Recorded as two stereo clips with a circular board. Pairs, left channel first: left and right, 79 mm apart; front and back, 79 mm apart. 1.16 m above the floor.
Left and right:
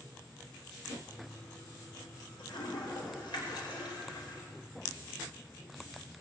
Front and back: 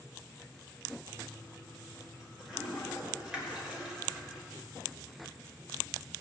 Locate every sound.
1.1 s a toilet flushing: 100° left, 3.5 m